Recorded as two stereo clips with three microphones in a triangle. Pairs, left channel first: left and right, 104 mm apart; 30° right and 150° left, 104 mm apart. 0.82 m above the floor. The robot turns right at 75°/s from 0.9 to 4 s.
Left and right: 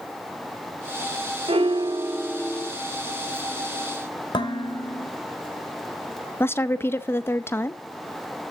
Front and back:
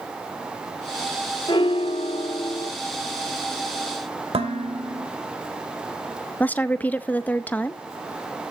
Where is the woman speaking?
35° left, 0.6 m.